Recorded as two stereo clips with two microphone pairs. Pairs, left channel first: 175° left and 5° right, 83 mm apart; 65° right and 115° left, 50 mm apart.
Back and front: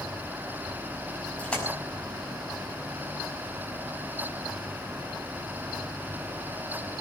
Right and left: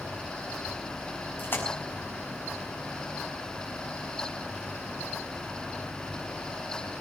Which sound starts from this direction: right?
A splash, at 1.4 s.